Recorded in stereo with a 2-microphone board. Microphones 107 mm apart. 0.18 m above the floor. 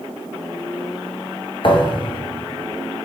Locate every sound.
1.6 s a thud: 55° left (ahead or behind), 1.2 m